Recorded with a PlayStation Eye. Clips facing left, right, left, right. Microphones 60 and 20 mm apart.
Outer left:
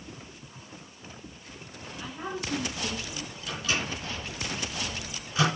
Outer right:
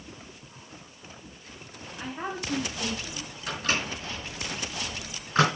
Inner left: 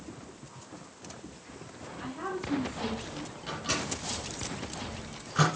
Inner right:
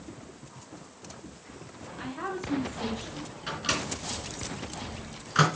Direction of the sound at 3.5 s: 45° right (ahead or behind).